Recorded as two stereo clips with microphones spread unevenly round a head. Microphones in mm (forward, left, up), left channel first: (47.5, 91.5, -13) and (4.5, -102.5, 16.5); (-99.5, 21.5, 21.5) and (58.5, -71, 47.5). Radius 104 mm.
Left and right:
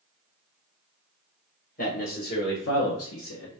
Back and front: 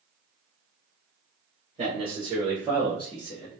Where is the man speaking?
25° left, 1.0 m; by 3.6 s 95° left, 0.7 m.